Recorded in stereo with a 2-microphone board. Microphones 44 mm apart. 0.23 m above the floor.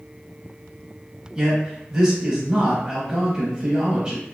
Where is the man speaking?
20° right (ahead or behind), 0.9 m.